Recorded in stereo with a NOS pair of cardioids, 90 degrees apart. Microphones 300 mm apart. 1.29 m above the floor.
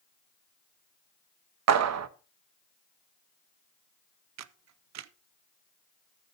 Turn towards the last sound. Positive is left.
turn(degrees=-60)